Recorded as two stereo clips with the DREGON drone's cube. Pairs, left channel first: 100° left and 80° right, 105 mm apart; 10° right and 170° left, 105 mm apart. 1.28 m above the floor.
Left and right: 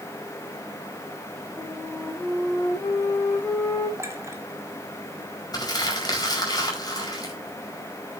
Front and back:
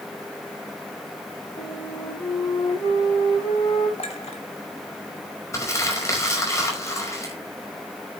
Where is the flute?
30° left, 4 m.